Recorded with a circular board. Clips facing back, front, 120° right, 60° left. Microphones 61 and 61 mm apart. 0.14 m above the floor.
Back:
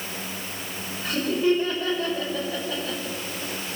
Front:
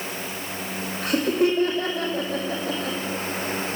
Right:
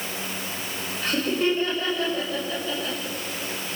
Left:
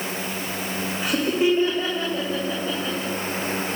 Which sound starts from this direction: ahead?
Laughter, at 1.0 s.